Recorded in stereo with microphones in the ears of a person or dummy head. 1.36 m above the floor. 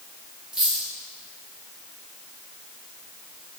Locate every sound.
0.5 s a dropped coin: centre (ahead or behind), 1.3 m